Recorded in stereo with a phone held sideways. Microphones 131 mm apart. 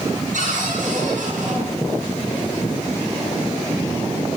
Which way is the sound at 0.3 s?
80° right.